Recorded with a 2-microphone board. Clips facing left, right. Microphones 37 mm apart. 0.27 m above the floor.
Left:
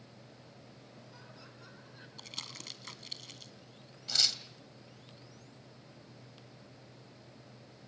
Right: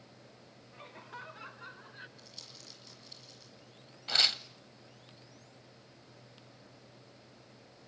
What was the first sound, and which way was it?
Laughter, 60° right (ahead or behind).